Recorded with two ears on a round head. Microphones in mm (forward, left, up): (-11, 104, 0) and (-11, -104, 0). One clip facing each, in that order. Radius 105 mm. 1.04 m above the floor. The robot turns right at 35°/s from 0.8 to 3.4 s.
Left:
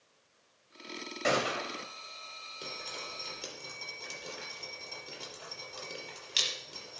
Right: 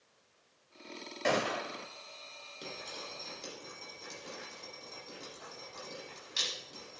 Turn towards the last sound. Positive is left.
turn(degrees=40)  # may be behind; listen again after turning